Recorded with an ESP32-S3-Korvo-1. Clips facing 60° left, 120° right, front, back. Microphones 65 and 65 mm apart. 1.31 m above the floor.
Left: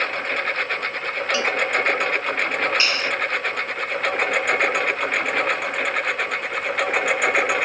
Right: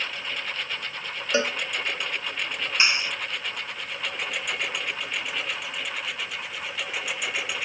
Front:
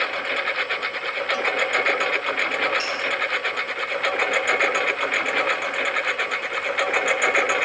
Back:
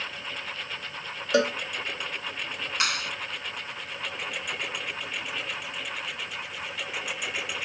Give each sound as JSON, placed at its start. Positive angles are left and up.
{"t": 0.0, "sound": "a lawn mower", "azimuth_deg": 25}
{"t": 1.3, "sound": "a cowbell", "azimuth_deg": 175}
{"t": 2.8, "sound": "a clap", "azimuth_deg": 170}